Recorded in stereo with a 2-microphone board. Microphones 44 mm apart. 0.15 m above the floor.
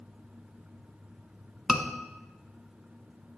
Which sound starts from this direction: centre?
A scream, at 1.7 s.